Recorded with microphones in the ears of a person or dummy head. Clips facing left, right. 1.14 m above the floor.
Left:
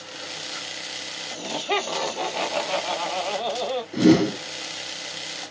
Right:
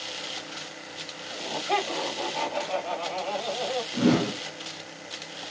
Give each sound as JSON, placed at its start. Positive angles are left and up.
{"t": 1.3, "sound": "laughter", "side_deg": 55, "distance_m": 1.3}
{"t": 3.9, "sound": "a whoosh", "side_deg": 25, "distance_m": 0.9}